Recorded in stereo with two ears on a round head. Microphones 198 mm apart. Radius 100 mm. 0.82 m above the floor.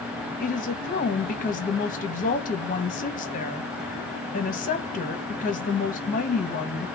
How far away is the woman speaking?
About 0.7 m.